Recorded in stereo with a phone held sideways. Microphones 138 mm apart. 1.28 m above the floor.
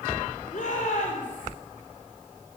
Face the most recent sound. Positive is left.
turn(degrees=65)  # may be behind; listen again after turning